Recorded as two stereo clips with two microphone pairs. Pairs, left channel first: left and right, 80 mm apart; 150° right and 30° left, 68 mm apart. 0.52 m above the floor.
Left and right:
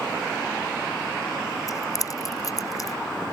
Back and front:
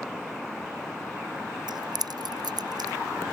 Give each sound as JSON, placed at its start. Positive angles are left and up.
{"t": 1.7, "sound": "keys jangling", "azimuth_deg": 45}